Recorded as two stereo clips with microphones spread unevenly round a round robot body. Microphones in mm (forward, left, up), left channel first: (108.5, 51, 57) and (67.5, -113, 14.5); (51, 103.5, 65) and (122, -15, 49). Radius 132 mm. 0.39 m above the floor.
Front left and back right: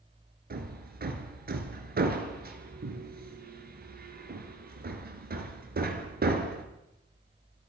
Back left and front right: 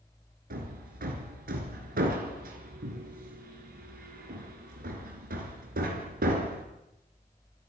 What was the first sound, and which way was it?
Hammering, 80° right.